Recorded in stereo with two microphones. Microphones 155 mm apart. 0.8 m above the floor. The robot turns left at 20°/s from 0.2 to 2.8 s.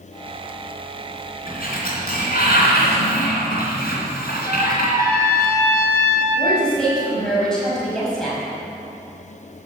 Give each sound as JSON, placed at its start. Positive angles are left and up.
{"t": 1.5, "sound": "a sliding door", "side_deg": 70, "distance_m": 3.0}
{"t": 4.5, "sound": "a trumpet", "side_deg": -25, "distance_m": 2.5}
{"t": 6.3, "sound": "a woman speaking", "side_deg": 5, "distance_m": 4.5}